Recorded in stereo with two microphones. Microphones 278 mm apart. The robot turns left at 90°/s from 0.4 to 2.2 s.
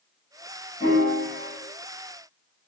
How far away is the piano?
About 1.5 m.